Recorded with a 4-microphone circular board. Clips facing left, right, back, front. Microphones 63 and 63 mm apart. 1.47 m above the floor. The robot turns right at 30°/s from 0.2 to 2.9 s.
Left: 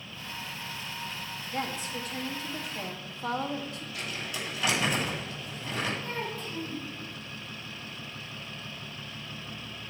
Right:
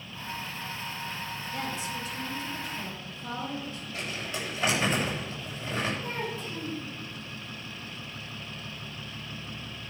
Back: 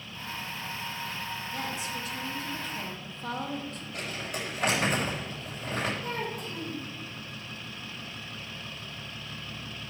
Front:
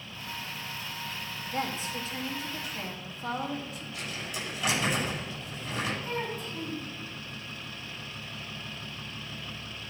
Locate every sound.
1.5 s a woman speaking: 40° left, 2.0 m; by 3.8 s 80° left, 2.0 m
3.9 s crumpling: 150° right, 6.5 m
6.0 s a child speaking: 160° right, 5.5 m